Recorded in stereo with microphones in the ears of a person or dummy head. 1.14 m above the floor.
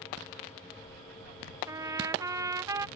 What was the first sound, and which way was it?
A trumpet, 20° right (ahead or behind).